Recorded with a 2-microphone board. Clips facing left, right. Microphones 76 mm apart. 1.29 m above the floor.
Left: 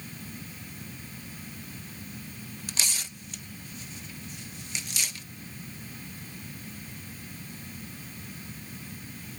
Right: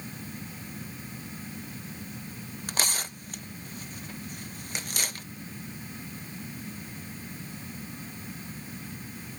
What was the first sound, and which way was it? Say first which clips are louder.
Tearing paper: right 6 dB; 50° right (ahead or behind).